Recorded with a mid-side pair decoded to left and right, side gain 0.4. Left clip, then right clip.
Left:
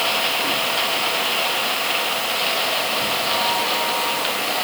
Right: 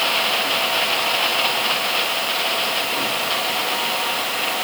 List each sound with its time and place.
Only background noise.